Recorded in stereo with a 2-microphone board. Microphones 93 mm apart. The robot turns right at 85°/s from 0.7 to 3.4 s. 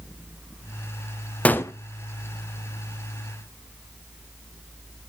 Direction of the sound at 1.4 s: 15° left (ahead or behind).